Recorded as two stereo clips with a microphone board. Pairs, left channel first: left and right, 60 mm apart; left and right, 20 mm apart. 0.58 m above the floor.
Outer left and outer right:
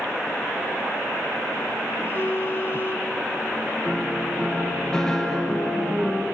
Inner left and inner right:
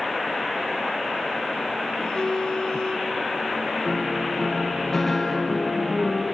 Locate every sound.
2.0 s a phone buzzing: 40° left (ahead or behind), 1.0 m
3.9 s a piano: 10° left (ahead or behind), 3.5 m